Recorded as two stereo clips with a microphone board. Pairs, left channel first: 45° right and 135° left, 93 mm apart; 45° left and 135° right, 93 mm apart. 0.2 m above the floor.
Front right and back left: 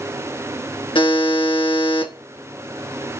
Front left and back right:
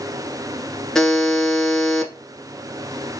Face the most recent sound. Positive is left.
turn(degrees=-40)